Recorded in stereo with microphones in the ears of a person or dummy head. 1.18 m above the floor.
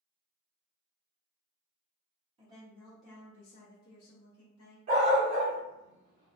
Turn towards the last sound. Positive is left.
turn(degrees=-45)  # may be behind; listen again after turning